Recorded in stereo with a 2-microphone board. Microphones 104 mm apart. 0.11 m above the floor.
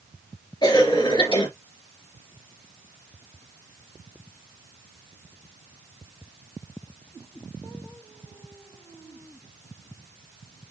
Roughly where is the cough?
Left.